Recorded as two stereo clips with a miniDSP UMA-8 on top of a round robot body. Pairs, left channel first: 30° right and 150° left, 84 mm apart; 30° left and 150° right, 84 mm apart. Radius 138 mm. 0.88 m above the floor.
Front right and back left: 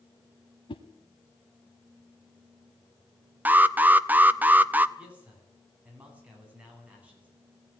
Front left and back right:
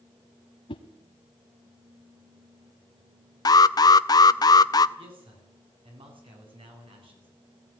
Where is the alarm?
75° left, 0.5 m.